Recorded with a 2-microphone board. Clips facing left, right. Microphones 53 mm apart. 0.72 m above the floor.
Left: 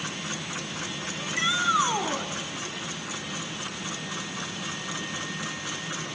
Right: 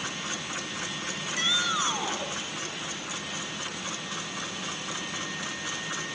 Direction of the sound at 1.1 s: 25° left (ahead or behind).